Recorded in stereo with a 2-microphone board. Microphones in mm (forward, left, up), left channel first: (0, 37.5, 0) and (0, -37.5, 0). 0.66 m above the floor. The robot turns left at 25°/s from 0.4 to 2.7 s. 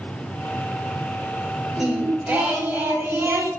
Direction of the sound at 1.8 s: 5° right (ahead or behind).